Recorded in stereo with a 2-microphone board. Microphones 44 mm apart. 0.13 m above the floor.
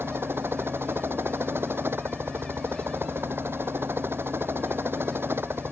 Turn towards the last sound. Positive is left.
turn(degrees=-55)  # may be behind; listen again after turning